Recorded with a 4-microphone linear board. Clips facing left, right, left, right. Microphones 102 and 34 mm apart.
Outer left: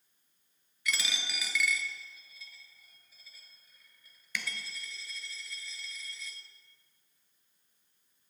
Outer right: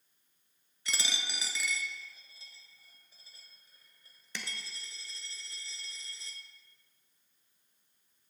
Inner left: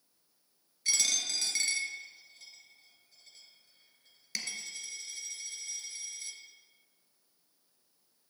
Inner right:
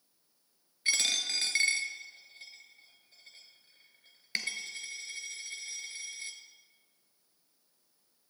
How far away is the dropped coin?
About 0.8 m.